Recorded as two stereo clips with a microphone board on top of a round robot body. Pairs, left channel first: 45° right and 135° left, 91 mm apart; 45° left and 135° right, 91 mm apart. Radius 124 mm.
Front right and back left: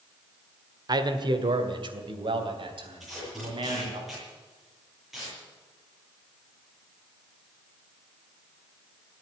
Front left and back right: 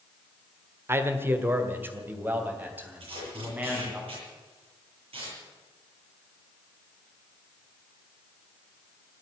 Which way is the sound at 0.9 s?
165° left.